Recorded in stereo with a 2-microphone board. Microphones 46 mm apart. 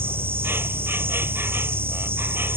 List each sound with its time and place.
0.0 s an insect: 60° right (ahead or behind)